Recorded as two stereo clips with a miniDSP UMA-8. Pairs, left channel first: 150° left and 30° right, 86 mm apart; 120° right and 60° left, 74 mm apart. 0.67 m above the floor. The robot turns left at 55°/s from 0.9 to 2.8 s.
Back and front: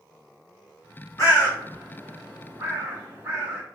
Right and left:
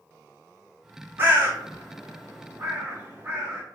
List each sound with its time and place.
1.2 s a bird: 110° left, 2.0 m; by 3.6 s 20° left, 2.0 m